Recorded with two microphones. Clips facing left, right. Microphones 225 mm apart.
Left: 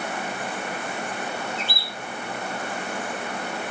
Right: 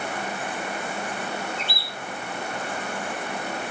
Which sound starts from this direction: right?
A bird, at 1.6 s.